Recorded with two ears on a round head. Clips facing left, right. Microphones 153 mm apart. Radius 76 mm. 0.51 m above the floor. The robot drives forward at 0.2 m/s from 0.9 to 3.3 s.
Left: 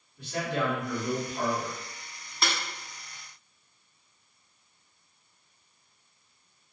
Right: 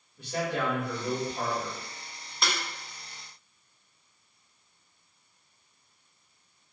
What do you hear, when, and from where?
0.2 s a man speaking: 15° right (ahead or behind), 1.6 m
2.4 s a snare drum: centre (ahead or behind), 0.6 m